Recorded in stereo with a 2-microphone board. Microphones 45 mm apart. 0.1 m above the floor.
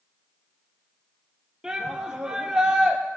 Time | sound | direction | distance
1.6 | a shout | 10° right (ahead or behind) | 2.5 m